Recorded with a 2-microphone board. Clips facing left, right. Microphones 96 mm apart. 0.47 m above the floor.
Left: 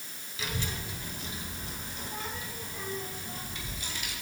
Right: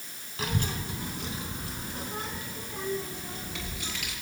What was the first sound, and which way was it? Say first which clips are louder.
A child speaking: right 5 dB; 50° right (ahead or behind).